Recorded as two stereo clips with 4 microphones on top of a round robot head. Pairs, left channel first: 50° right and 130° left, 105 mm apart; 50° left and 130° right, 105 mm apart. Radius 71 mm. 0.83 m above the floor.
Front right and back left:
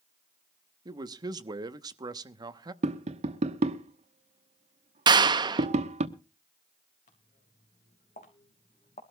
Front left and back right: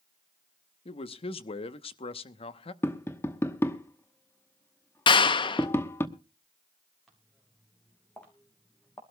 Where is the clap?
85° left, 0.8 m.